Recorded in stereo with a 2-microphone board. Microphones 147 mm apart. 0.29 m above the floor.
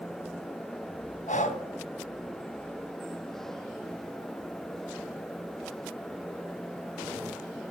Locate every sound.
1.3 s breathing: 55° left (ahead or behind), 2 m